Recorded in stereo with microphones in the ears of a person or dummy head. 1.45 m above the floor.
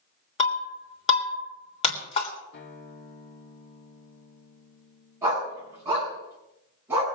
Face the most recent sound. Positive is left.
turn(degrees=-15)  # may be behind; listen again after turning